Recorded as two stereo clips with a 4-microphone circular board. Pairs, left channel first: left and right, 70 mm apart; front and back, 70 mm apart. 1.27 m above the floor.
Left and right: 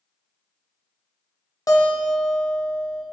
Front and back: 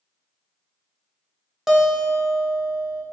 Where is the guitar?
95° left, 0.7 m.